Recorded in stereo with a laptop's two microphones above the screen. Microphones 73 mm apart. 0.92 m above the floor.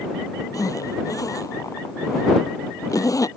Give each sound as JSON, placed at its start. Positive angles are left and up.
{"t": 0.5, "sound": "a zipper", "side_deg": 50}